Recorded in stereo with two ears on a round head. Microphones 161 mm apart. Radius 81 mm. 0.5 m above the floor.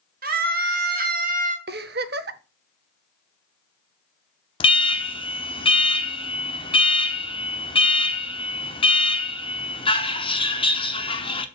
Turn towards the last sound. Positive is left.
turn(degrees=30)  # may be behind; listen again after turning